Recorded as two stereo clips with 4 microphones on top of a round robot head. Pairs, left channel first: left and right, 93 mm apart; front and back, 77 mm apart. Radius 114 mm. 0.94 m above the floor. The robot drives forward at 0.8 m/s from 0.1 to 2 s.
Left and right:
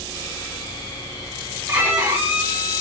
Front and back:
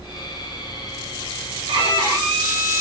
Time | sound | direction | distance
1.7 | a violin | 155° right | 1.3 m